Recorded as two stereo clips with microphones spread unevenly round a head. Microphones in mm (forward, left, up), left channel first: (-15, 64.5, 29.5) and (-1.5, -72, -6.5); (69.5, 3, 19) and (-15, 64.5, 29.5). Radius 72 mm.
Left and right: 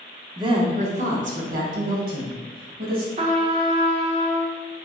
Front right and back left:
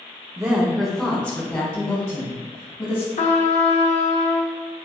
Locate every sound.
0.4 s a woman speaking: 145° right, 0.8 m; by 3.1 s 95° right, 2.5 m
3.2 s a trumpet: 30° right, 0.7 m